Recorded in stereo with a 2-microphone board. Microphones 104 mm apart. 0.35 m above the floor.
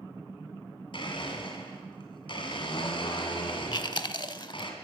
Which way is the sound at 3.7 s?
50° left (ahead or behind).